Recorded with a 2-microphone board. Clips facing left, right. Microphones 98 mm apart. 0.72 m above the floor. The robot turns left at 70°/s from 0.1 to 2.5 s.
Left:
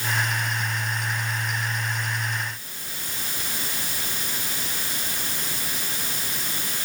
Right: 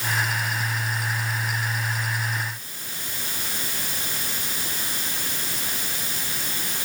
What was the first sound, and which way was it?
Only background noise.